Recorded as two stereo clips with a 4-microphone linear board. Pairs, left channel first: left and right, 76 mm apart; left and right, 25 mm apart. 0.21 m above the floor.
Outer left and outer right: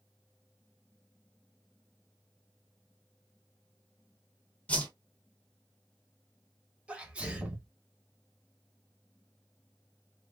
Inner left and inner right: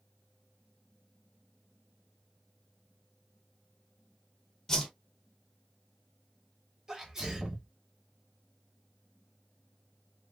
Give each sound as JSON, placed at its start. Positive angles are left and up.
{"t": 4.7, "sound": "a whoosh", "side_deg": 20, "distance_m": 1.1}
{"t": 6.9, "sound": "a sneeze", "side_deg": -15, "distance_m": 1.2}